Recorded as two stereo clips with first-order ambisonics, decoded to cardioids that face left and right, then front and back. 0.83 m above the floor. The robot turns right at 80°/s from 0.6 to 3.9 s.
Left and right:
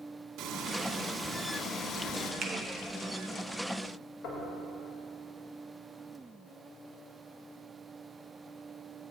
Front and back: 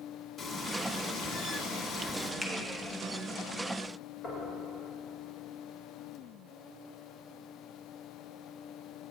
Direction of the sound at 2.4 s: 80° right.